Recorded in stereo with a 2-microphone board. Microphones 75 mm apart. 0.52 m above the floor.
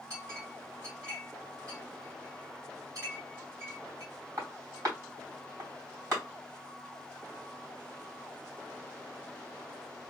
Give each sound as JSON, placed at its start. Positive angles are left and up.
{"t": 0.1, "sound": "a clink", "side_deg": -45, "distance_m": 2.5}